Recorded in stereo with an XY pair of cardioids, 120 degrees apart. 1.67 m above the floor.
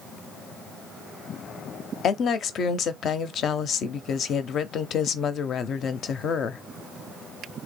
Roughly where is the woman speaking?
Ahead left.